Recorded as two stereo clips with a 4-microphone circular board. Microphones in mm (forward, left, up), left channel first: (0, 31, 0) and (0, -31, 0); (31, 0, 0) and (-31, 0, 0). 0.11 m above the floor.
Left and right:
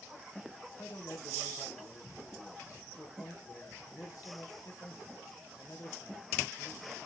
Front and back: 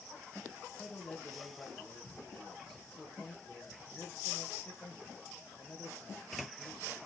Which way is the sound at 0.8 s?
75° left.